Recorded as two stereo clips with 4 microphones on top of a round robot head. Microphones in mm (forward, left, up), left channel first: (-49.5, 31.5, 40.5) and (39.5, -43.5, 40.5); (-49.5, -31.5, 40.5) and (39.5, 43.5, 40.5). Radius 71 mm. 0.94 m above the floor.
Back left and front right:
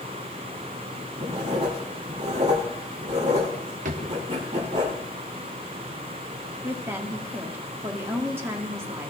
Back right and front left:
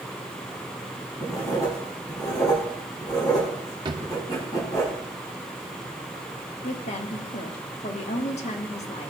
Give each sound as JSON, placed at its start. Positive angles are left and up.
{"t": 1.2, "sound": "writing", "azimuth_deg": -80, "distance_m": 7.0}
{"t": 3.9, "sound": "a drawer", "azimuth_deg": -15, "distance_m": 0.8}
{"t": 6.6, "sound": "a woman speaking", "azimuth_deg": -110, "distance_m": 1.7}